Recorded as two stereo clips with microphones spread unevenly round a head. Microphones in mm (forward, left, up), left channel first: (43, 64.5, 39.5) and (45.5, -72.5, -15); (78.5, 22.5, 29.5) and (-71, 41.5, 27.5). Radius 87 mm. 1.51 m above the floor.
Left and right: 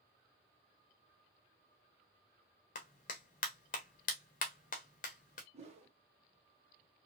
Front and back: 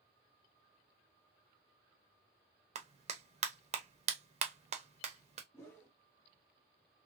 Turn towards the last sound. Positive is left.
turn(degrees=-55)